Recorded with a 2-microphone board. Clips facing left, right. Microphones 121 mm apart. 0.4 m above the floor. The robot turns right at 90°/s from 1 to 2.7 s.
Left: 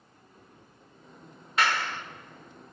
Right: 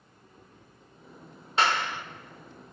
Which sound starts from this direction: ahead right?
A clap, at 1.6 s.